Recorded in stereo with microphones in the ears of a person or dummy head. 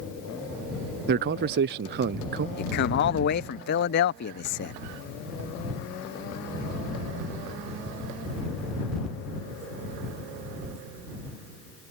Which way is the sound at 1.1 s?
50° right (ahead or behind).